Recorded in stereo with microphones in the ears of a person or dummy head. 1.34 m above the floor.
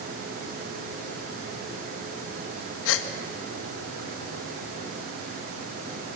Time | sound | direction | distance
2.9 | a gasp | 85° left | 1.4 m